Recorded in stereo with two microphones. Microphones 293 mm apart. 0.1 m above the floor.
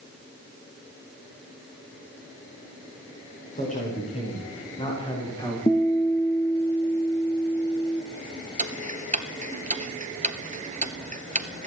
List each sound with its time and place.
3.5 s a man speaking: 25° left (ahead or behind), 8.5 m; by 5.6 s 15° left (ahead or behind), 10.5 m
5.7 s a guitar: 20° left (ahead or behind), 2.0 m
8.6 s ticking: 25° right (ahead or behind), 1.2 m